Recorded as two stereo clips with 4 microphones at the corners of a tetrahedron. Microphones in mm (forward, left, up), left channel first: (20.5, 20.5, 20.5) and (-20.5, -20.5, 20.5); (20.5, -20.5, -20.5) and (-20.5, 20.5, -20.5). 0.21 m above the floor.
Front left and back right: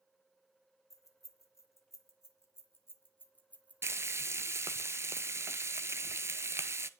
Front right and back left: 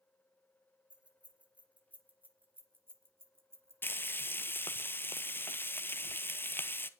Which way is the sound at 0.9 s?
65° left.